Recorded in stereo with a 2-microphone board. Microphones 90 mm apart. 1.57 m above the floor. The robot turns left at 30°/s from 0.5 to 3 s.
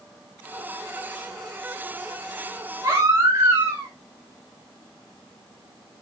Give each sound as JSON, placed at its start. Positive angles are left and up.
{"t": 2.8, "sound": "a baby crying", "side_deg": -35, "distance_m": 2.5}